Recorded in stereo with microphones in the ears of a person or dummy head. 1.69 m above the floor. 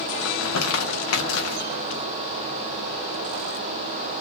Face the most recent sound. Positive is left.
turn(degrees=85)